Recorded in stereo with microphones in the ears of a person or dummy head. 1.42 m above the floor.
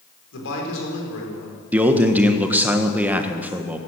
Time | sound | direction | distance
0.3 | a man speaking | 75° left (ahead or behind) | 5 m
1.7 | a man speaking | 10° right (ahead or behind) | 1.3 m